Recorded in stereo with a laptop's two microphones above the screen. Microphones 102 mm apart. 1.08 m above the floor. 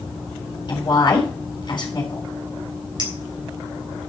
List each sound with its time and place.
0.7 s a woman speaking: 50° left (ahead or behind), 3.5 m
3.0 s a clink: 45° right (ahead or behind), 3 m